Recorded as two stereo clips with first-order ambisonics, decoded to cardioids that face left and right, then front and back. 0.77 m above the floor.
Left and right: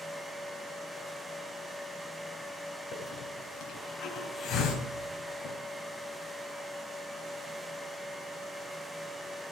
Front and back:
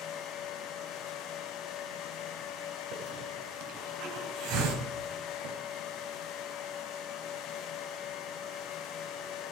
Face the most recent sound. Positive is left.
turn(degrees=150)